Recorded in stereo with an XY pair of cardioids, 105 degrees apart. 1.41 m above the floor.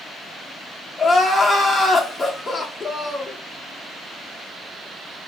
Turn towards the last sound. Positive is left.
turn(degrees=25)